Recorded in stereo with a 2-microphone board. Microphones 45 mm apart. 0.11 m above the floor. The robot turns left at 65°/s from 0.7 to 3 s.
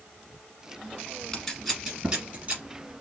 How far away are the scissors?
About 1.9 m.